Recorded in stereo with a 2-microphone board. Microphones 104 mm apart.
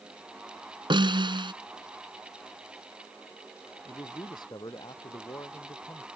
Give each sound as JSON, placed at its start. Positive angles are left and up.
{"t": 0.9, "sound": "a snare drum", "side_deg": -50}
{"t": 3.9, "sound": "a man speaking", "side_deg": 40}